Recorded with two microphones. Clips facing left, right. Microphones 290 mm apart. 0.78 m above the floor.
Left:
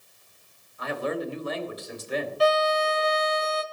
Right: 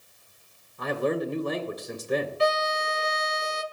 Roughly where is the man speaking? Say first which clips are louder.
Right 3 dB; right.